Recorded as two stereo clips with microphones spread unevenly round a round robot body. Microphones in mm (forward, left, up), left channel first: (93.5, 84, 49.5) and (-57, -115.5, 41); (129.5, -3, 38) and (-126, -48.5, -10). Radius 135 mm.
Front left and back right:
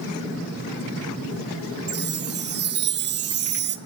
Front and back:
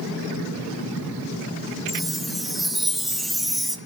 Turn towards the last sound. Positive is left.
turn(degrees=-85)